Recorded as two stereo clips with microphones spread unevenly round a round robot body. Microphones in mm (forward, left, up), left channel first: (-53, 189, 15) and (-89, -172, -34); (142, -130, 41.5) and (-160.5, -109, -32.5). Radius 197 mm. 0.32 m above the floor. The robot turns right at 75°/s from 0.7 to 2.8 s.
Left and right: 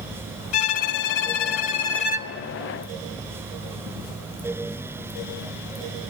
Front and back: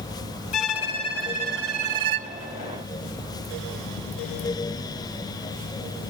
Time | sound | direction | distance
0.5 | a violin | 50° left | 1.0 m